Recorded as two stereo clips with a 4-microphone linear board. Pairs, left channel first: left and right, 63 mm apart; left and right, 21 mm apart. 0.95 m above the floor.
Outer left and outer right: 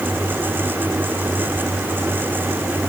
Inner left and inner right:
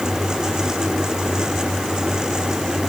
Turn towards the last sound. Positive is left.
No sound to turn to.